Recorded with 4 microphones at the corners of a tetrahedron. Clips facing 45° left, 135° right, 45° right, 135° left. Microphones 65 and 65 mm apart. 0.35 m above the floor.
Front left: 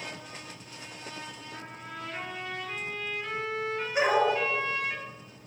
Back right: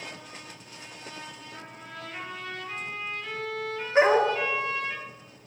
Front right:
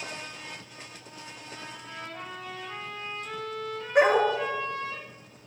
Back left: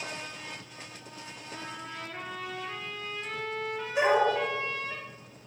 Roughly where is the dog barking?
Right.